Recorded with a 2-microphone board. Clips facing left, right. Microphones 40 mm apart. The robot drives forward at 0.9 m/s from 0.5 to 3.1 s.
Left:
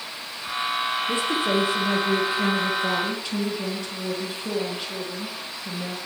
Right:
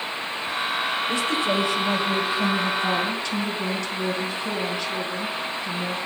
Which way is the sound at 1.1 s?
30° left (ahead or behind).